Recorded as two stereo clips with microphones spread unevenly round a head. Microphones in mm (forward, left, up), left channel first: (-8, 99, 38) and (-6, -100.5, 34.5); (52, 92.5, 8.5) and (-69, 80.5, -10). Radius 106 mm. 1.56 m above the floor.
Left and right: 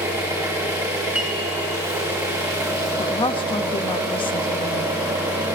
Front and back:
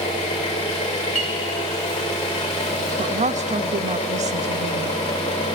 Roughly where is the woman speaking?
Behind.